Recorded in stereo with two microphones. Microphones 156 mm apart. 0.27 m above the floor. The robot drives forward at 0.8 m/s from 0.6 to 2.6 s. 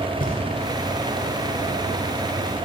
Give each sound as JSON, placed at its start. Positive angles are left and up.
{"t": 0.2, "sound": "knocking", "side_deg": 65, "distance_m": 3.0}